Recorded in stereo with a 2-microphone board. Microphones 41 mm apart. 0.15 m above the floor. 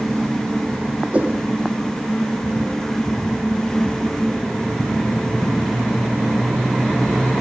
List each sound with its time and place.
1.1 s a whoosh: 35° right (ahead or behind), 2.5 m